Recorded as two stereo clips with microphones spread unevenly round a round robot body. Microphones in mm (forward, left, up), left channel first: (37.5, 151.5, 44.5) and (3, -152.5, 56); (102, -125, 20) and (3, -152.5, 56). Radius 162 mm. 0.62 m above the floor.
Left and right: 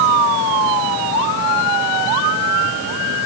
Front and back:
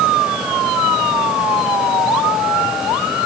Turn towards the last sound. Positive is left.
No sound to turn to.